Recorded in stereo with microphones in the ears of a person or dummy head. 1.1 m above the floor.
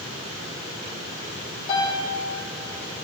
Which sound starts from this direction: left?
A piano, at 1.7 s.